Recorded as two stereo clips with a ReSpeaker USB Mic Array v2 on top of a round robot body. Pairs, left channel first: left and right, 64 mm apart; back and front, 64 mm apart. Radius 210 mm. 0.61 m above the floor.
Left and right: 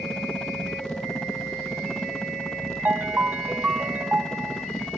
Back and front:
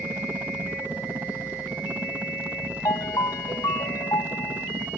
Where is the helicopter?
25° left.